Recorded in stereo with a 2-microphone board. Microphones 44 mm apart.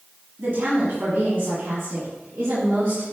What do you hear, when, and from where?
0.4 s a woman speaking: 55° right (ahead or behind), 2.5 m; by 3.1 s 50° right (ahead or behind), 3.5 m